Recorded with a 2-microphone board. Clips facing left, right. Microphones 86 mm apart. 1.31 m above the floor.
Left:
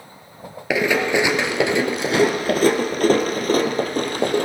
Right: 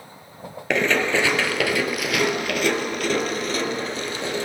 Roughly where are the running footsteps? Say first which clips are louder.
Left 2 dB; centre.